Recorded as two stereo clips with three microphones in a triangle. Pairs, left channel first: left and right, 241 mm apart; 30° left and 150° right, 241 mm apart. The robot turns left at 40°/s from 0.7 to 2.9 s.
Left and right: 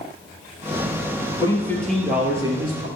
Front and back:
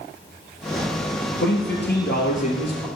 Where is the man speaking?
25° left, 2.5 m; by 2.9 s 35° right, 2.5 m.